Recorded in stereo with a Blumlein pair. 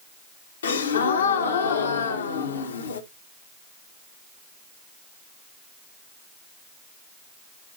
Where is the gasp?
65° left, 1.1 m.